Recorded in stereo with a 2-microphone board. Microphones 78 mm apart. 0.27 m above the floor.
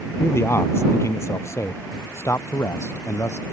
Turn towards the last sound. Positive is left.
turn(degrees=40)  # may be behind; listen again after turning